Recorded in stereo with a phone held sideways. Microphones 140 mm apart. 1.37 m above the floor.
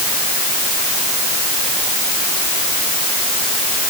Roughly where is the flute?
No flute in this recording.